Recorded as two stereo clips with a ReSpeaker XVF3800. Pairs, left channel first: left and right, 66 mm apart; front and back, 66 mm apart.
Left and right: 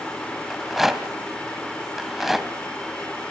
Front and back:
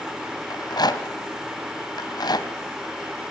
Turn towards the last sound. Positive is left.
turn(degrees=-5)